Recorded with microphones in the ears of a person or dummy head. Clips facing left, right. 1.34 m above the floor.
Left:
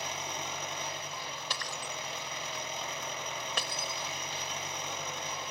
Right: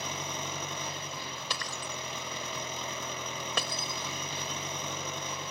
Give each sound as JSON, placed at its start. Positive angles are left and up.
{"t": 0.0, "sound": "an engine running", "side_deg": -75}
{"t": 1.5, "sound": "breaking glass", "side_deg": -70}